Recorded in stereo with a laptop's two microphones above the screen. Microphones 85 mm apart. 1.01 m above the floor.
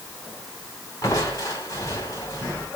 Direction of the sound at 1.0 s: 40° left (ahead or behind).